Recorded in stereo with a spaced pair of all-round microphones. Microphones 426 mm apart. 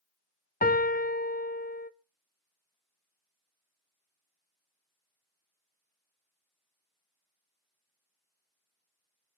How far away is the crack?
I don't hear a crack.